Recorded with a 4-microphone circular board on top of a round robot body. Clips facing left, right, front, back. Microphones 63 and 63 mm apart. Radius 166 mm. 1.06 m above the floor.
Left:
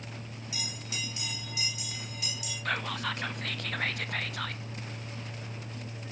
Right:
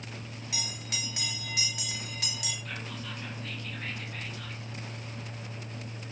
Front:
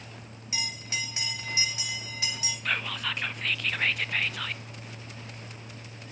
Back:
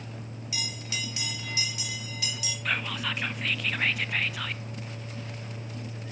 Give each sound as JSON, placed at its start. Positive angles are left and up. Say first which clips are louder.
{"t": 0.5, "sound": "a bell", "louder": "right 1 dB, front 2 dB", "azimuth_deg": -60, "distance_m": 3.0}
{"t": 2.6, "sound": "whispering", "louder": "left 7 dB, back 1 dB", "azimuth_deg": 95, "distance_m": 1.1}